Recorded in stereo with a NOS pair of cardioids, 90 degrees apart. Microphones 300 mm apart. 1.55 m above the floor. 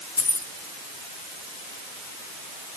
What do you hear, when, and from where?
0.2 s keys jangling: 60° left, 3.5 m